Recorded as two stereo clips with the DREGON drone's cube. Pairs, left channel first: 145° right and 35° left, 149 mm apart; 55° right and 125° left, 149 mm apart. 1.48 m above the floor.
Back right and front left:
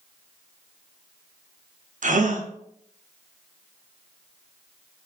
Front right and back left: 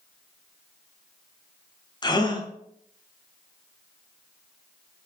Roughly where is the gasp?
Ahead.